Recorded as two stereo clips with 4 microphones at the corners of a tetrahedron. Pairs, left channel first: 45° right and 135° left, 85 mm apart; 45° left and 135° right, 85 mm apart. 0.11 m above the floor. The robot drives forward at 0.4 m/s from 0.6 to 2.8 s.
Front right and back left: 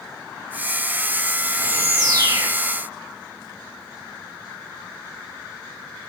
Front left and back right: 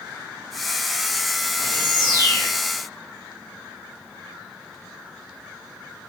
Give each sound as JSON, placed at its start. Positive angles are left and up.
{"t": 1.6, "sound": "a bird", "azimuth_deg": 85, "distance_m": 2.5}